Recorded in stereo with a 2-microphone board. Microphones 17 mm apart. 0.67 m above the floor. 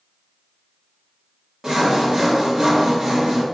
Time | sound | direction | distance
1.6 | sawing | 30° right (ahead or behind) | 1.0 m